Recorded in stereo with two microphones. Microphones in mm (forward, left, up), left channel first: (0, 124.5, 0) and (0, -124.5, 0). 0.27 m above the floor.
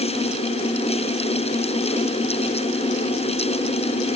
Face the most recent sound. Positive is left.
No sound to turn to.